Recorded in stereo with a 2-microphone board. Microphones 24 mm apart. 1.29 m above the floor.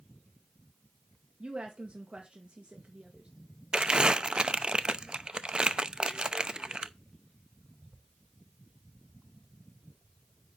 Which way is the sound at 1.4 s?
55° right (ahead or behind).